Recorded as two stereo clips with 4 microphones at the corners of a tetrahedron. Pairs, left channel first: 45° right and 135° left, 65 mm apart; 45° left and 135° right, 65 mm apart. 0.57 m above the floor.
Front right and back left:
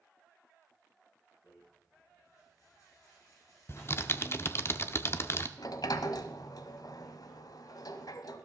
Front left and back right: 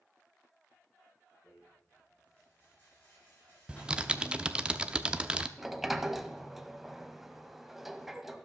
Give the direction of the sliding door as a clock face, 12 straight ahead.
2 o'clock.